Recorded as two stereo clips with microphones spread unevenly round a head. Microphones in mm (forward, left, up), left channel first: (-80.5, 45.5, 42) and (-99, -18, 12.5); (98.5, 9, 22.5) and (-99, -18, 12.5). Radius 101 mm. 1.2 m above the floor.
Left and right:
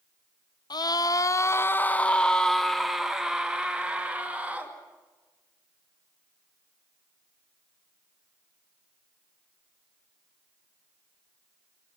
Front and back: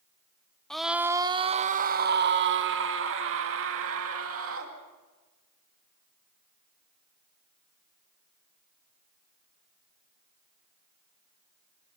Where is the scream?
95° left, 0.9 m; by 4.8 s 170° right, 2.5 m.